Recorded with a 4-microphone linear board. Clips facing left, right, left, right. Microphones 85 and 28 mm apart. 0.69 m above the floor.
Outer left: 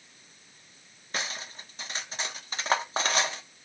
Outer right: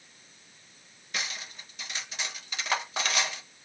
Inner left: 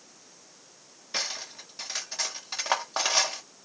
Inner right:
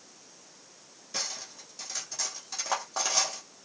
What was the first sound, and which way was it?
Cutlery clinking, 35° left (ahead or behind).